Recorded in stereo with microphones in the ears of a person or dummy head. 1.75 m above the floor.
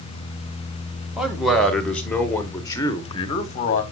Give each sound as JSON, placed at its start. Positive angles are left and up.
{"t": 1.2, "sound": "a man speaking", "side_deg": -5, "distance_m": 2.0}